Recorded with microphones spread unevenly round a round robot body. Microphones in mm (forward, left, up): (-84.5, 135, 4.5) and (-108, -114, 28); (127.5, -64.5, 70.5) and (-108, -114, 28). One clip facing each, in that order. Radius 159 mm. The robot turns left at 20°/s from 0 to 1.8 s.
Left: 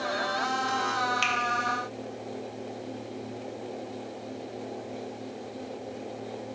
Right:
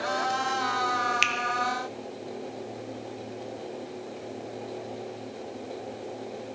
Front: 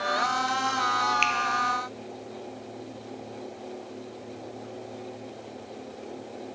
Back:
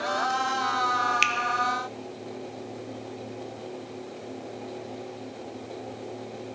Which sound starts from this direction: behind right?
A finger snap, at 1.2 s.